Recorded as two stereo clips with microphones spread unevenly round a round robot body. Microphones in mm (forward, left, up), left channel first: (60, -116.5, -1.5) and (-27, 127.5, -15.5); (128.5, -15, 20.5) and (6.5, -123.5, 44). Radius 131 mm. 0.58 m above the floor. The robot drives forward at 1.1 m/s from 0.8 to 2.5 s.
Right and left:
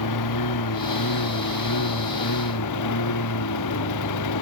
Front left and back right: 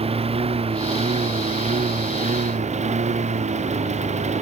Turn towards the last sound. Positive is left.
turn(degrees=-95)